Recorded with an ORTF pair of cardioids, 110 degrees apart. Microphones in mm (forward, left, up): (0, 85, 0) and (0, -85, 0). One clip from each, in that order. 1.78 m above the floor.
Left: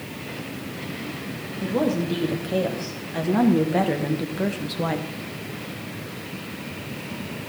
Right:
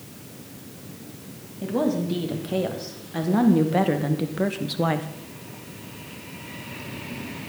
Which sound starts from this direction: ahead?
A woman speaking, at 1.6 s.